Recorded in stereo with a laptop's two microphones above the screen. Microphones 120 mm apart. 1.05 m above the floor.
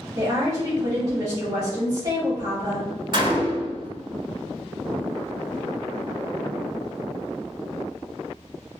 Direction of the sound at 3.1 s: 45° right (ahead or behind).